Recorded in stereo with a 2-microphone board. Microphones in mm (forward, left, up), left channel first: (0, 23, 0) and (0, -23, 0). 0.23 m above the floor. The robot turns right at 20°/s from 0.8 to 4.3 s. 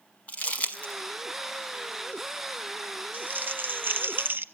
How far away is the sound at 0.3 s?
About 1.1 m.